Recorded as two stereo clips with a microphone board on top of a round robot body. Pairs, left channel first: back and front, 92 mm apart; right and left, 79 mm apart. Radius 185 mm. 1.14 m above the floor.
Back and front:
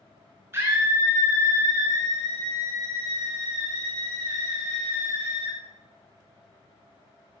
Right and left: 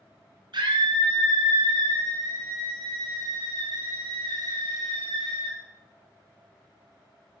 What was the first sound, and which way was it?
A scream, 60° left.